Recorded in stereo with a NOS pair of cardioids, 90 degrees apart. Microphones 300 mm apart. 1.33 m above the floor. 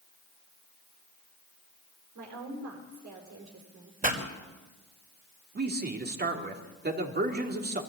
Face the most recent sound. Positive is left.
turn(degrees=-30)